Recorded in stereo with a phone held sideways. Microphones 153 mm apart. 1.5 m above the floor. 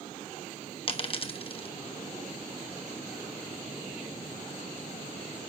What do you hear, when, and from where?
0.9 s a dropped coin: 40° left (ahead or behind), 1.0 m